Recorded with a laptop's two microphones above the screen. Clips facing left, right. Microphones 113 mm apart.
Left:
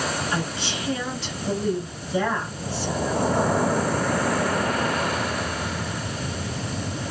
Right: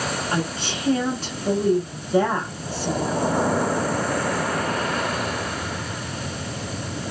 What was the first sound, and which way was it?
A woman speaking, 40° right (ahead or behind).